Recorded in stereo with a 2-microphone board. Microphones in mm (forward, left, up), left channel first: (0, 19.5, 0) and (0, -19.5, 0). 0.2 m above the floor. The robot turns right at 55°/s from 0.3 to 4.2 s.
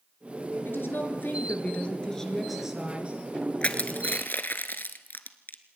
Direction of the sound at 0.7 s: 80° left.